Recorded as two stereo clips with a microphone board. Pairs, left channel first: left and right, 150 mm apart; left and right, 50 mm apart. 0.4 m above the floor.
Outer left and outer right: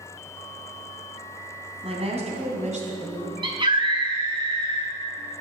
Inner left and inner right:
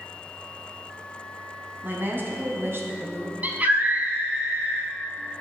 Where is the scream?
35° right (ahead or behind), 3 m.